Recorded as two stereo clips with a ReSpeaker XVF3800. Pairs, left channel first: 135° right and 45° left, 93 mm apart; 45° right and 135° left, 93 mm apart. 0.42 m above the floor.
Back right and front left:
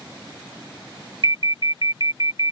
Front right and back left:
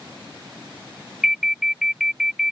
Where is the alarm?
50° left.